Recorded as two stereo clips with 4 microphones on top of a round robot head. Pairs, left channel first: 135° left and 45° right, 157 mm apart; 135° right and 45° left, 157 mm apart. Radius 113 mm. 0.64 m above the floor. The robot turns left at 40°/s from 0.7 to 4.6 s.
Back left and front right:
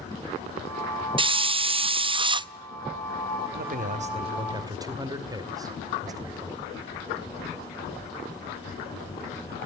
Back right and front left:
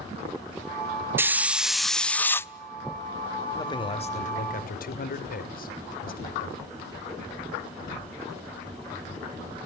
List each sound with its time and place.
1.2 s a hiss: 20° right, 0.5 m; by 2.5 s 75° right, 0.5 m
3.5 s a man speaking: 70° right, 2.5 m; by 6.7 s 110° right, 2.5 m